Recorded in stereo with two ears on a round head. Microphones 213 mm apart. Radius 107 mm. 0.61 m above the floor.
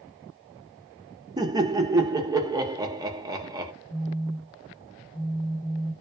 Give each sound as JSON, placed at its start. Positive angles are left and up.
{"t": 1.4, "sound": "laughter", "side_deg": -15, "distance_m": 0.6}
{"t": 3.9, "sound": "a phone buzzing", "side_deg": 35, "distance_m": 1.6}